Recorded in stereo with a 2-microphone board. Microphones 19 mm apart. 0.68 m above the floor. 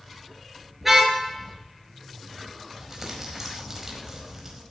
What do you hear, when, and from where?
0.8 s a car horn: 10° right (ahead or behind), 6 m
2.8 s crumpling: 20° right (ahead or behind), 4.5 m